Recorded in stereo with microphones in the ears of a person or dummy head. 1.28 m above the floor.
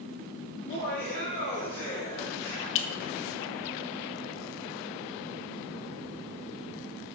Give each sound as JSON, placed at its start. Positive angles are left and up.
{"t": 0.6, "sound": "laughter", "side_deg": 70, "distance_m": 1.9}
{"t": 2.8, "sound": "a clink", "side_deg": 65, "distance_m": 0.7}